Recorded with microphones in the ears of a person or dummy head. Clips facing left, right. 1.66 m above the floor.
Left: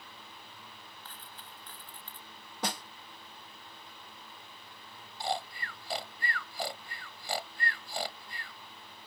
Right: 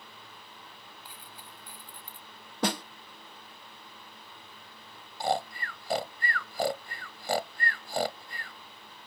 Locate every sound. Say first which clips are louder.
1.1 s a dropped coin: right 1 dB; 15° right (ahead or behind)
2.6 s a snare drum: right 7 dB; 50° right (ahead or behind)
5.2 s snoring: right 6 dB; 45° right (ahead or behind)